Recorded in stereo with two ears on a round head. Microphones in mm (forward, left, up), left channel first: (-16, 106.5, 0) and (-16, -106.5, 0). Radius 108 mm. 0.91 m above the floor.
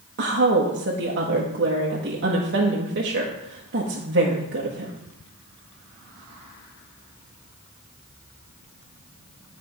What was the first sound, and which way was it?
A woman speaking, 50° right (ahead or behind).